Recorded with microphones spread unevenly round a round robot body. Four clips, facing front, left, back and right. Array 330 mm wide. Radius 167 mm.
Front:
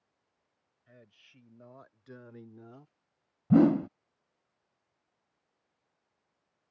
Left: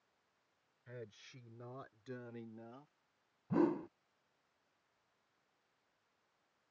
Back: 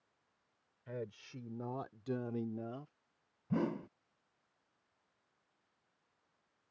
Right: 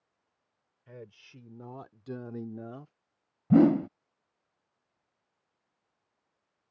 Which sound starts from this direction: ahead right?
A whoosh, at 3.5 s.